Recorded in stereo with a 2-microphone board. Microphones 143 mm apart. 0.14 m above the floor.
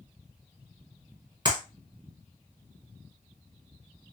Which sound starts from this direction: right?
A clap, at 1.4 s.